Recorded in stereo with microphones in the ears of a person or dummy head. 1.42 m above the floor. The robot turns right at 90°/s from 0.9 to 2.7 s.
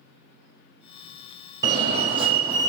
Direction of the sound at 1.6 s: 20° right (ahead or behind).